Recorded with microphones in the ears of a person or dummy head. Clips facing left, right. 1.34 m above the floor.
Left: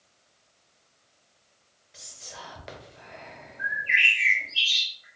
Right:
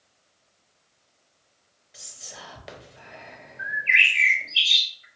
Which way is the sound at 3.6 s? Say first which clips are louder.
Right 2 dB; 30° right (ahead or behind).